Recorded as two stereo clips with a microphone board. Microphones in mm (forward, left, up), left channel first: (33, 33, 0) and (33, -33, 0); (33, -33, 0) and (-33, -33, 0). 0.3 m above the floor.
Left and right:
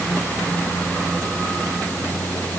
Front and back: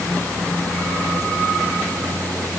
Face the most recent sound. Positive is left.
No sound to turn to.